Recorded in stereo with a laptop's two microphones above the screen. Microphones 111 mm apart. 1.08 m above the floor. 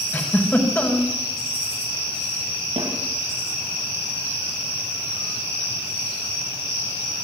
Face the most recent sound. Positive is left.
turn(degrees=-80)